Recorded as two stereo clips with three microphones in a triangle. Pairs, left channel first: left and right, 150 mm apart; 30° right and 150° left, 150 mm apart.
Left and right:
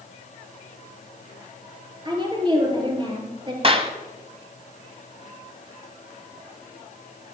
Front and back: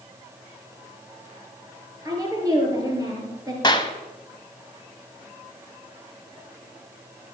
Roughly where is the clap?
Right.